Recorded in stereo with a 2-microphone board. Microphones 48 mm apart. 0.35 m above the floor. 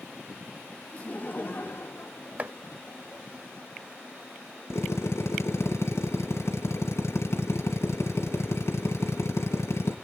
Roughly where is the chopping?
Right.